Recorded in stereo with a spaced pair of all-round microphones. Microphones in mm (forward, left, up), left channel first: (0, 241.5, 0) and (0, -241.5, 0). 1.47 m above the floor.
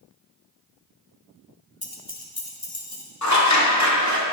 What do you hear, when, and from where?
1.8 s keys jangling: 15° left (ahead or behind), 0.6 m; by 3.0 s 40° left (ahead or behind), 1.3 m
3.2 s scissors: 35° left (ahead or behind), 0.8 m